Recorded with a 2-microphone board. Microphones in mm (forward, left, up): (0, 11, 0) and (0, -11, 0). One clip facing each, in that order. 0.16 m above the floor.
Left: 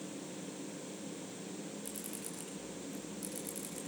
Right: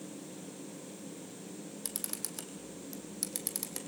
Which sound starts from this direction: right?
A camera shutter, at 1.9 s.